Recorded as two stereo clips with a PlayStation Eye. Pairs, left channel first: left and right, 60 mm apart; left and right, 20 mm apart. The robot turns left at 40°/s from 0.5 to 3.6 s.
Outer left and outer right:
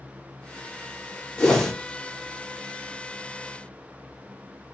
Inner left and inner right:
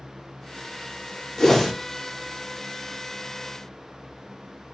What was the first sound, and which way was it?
A whoosh, 10° left (ahead or behind).